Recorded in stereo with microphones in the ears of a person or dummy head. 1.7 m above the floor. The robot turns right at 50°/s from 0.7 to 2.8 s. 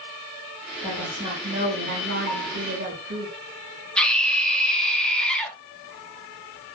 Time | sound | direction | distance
0.8 | a woman speaking | 175° right | 4.5 m
2.3 | a bell | 65° right (ahead or behind) | 2 m
4.0 | a scream | 5° left (ahead or behind) | 2.5 m